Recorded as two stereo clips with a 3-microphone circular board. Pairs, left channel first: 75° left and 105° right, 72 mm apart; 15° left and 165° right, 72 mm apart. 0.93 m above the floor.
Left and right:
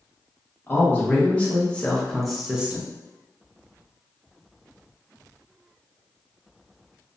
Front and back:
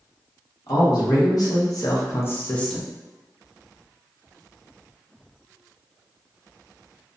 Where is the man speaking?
15° left, 1.2 m; by 2.9 s 75° right, 0.5 m.